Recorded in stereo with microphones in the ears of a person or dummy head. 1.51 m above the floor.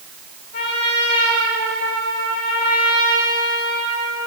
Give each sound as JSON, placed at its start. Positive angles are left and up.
{"t": 0.5, "sound": "a trumpet", "side_deg": 50, "distance_m": 5.0}